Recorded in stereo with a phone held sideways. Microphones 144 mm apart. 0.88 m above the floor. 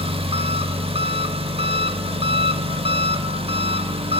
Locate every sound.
0.0 s an engine running: 40° right (ahead or behind), 0.8 m